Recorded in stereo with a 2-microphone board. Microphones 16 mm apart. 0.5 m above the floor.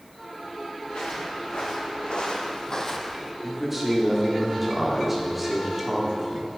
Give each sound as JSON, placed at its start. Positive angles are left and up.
{"t": 0.9, "sound": "footsteps", "side_deg": 80, "distance_m": 3.0}
{"t": 3.4, "sound": "a man speaking", "side_deg": -15, "distance_m": 1.4}